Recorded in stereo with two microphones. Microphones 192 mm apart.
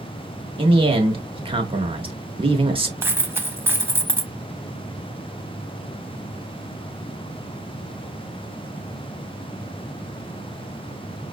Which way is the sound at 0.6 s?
25° right (ahead or behind).